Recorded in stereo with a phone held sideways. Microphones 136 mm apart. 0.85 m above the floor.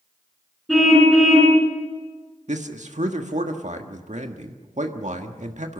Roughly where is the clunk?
I don't hear a clunk.